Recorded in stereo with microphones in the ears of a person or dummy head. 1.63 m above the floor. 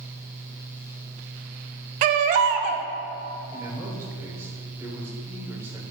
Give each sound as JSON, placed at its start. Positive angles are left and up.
{"t": 2.0, "sound": "a baby crying", "side_deg": -40, "distance_m": 0.5}
{"t": 3.5, "sound": "a man speaking", "side_deg": -15, "distance_m": 1.3}